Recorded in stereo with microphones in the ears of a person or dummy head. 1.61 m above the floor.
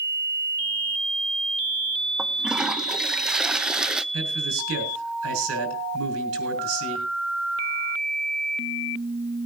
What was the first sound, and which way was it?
A toilet flushing, centre (ahead or behind).